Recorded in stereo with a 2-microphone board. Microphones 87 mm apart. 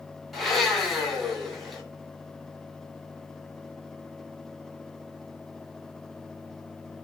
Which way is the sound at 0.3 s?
Centre (ahead or behind).